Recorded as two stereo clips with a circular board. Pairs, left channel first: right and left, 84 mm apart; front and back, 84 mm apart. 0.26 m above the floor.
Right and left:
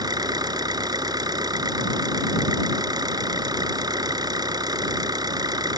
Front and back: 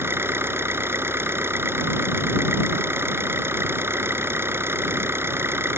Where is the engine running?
120° left.